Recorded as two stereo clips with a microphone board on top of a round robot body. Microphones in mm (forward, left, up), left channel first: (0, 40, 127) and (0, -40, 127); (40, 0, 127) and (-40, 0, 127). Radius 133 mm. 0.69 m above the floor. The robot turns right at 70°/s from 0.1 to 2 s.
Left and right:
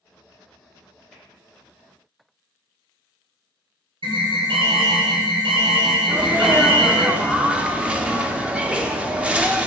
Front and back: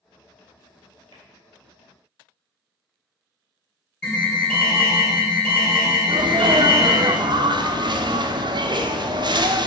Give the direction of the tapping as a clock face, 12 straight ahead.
6 o'clock.